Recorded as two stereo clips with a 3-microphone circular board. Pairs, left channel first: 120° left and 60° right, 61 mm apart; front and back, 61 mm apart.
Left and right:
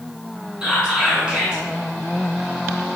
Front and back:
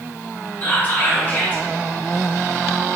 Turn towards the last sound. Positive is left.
turn(degrees=-5)